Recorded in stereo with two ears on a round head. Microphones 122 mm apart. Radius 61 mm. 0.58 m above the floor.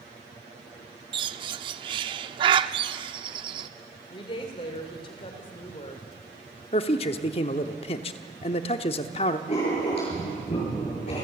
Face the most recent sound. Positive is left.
turn(degrees=50)  # may be behind; listen again after turning